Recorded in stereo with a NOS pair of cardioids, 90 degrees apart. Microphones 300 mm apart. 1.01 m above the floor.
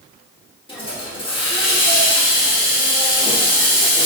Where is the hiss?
20° left, 1.6 m.